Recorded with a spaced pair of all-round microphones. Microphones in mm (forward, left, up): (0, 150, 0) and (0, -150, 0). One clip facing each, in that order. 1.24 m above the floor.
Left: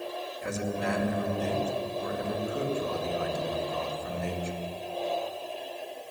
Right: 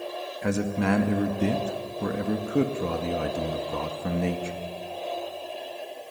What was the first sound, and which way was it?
A man speaking, 75° right (ahead or behind).